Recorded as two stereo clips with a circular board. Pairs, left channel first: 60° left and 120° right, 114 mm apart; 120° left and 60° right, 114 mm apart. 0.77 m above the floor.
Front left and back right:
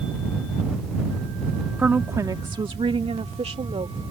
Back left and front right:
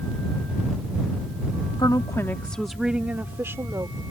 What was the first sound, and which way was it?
A woman speaking, 160° left.